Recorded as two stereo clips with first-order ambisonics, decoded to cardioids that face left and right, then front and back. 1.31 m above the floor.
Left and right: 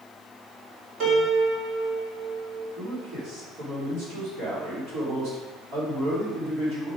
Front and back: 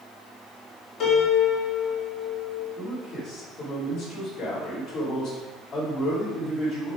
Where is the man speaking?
65° right, 3.5 m.